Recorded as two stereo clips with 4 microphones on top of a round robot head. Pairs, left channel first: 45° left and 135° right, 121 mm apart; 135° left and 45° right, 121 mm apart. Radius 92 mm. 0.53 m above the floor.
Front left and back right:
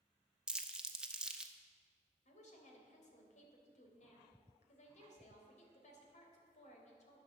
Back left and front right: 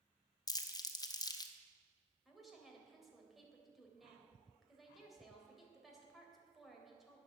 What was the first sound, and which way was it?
Crumpling, 145° left.